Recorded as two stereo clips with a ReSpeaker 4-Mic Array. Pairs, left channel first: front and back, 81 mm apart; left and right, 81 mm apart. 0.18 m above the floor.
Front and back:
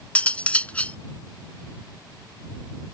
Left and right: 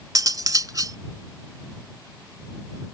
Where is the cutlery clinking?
70° right.